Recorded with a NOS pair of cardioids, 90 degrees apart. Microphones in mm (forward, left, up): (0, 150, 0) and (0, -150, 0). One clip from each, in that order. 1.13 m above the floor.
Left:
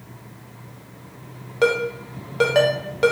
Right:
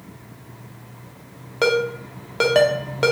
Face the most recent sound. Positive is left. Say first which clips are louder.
# even
turn(degrees=-10)